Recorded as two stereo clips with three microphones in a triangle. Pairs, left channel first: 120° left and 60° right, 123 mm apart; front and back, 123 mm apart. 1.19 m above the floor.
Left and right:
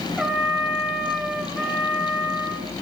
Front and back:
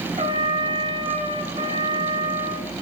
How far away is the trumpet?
About 3.5 m.